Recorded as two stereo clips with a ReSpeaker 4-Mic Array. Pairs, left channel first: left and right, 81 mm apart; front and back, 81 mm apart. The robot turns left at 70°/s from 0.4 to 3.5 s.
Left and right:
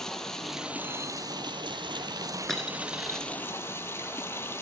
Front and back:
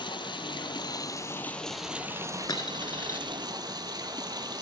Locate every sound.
0.0 s running water: 5° left, 0.9 m; by 4.6 s 150° left, 0.9 m
2.5 s a dropped coin: 5° left, 0.9 m; by 3.2 s 45° right, 0.9 m